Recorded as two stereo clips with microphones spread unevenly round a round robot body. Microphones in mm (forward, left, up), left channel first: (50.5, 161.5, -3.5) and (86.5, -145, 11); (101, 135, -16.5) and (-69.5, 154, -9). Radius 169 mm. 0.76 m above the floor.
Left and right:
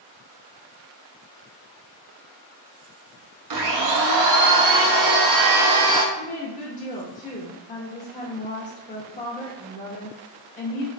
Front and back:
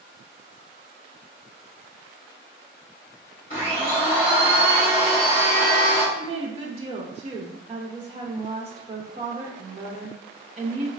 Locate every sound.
3.5 s a blender: 70° right, 0.8 m
6.2 s a woman speaking: 140° left, 0.6 m